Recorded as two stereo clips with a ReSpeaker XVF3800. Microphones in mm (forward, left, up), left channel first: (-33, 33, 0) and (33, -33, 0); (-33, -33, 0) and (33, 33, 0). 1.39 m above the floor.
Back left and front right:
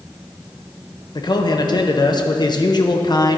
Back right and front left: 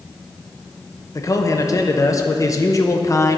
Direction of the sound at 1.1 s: 175° left.